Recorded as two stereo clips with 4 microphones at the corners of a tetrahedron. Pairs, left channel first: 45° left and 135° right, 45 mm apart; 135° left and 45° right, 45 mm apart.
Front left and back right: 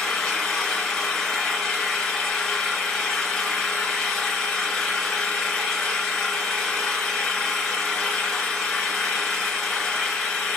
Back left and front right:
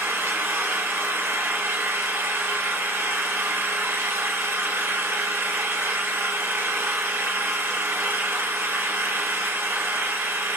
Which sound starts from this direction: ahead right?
An engine running, at 0.0 s.